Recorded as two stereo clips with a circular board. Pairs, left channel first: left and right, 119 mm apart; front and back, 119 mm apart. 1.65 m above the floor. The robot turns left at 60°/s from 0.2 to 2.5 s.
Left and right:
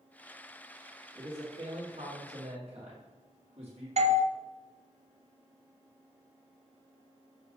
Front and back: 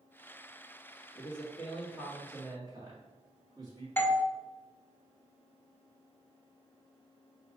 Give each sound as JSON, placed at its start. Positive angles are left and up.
{"t": 1.1, "sound": "a man speaking", "azimuth_deg": -40, "distance_m": 2.0}
{"t": 4.0, "sound": "a doorbell", "azimuth_deg": -75, "distance_m": 0.6}